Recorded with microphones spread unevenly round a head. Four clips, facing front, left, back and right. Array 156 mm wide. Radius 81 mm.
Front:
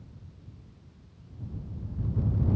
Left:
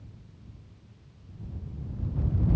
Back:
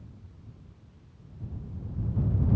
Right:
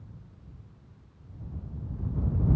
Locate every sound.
Only background noise.